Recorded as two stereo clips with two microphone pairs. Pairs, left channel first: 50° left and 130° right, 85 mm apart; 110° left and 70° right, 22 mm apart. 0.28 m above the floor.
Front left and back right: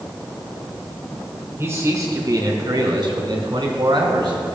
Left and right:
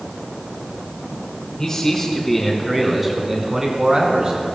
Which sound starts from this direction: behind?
A man speaking, at 1.6 s.